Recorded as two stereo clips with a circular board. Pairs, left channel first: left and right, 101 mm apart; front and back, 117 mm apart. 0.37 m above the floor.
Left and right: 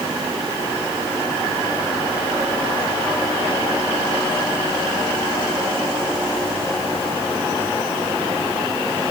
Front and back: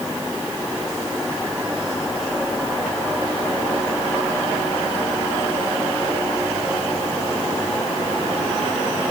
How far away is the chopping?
I don't hear chopping.